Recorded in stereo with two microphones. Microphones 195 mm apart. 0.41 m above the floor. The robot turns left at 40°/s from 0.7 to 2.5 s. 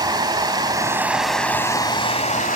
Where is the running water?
155° right, 1.4 m; by 2.6 s 130° left, 1.4 m.